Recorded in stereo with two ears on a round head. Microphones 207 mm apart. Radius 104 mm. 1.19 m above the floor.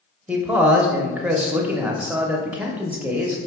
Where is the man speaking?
5° right (ahead or behind), 0.7 m.